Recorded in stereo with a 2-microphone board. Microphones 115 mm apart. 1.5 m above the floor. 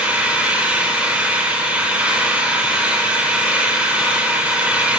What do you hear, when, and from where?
0.0 s an engine running: 10° right (ahead or behind), 5.5 m